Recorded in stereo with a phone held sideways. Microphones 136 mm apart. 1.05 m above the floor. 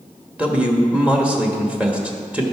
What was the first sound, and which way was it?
A man speaking, 10° right (ahead or behind).